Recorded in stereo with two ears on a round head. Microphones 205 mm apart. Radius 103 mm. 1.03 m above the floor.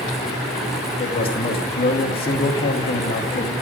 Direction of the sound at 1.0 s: 25° left (ahead or behind).